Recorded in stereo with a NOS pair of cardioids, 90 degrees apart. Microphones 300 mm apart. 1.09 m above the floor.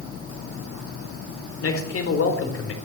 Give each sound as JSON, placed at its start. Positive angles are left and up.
{"t": 1.6, "sound": "a man speaking", "azimuth_deg": 45, "distance_m": 4.0}